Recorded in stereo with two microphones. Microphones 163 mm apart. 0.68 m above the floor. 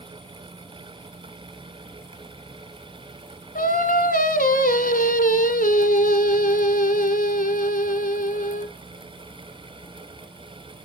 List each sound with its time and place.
3.5 s singing: 60° left (ahead or behind), 1.0 m